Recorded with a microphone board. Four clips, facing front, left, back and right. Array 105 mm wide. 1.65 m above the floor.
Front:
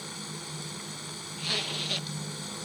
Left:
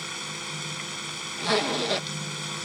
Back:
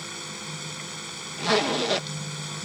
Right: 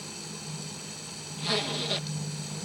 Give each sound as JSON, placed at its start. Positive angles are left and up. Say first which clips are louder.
{"t": 0.0, "sound": "running water", "louder": "left 5 dB, back 3 dB", "azimuth_deg": 105}
{"t": 1.4, "sound": "a zipper", "louder": "left 6 dB, back 14 dB", "azimuth_deg": 150}